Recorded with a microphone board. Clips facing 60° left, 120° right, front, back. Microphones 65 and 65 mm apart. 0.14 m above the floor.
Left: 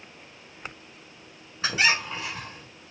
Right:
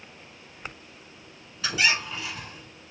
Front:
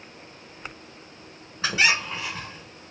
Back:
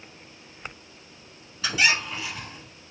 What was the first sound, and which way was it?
A squeak, 30° left.